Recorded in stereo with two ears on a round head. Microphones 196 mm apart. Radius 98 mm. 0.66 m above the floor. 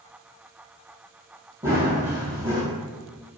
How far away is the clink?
I don't hear a clink.